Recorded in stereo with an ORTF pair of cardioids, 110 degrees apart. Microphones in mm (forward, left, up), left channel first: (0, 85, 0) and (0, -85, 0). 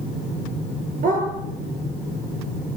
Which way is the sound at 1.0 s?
50° right.